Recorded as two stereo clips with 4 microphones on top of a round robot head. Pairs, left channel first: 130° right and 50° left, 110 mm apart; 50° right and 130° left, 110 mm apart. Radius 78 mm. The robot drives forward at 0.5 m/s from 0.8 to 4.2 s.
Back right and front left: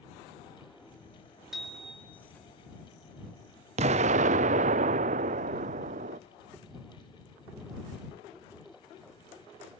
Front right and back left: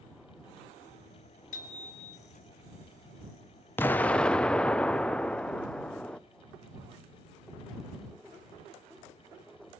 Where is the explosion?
25° left, 0.7 m; by 6.2 s 30° left, 0.5 m.